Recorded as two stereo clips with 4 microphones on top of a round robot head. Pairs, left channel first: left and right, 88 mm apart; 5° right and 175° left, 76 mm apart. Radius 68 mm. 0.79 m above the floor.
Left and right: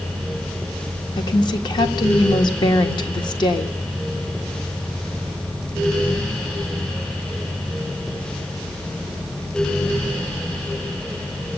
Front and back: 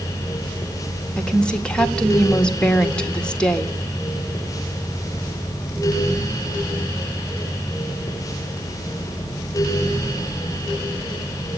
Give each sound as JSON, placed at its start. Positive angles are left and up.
{"t": 1.2, "sound": "a woman speaking", "azimuth_deg": 70, "distance_m": 1.7}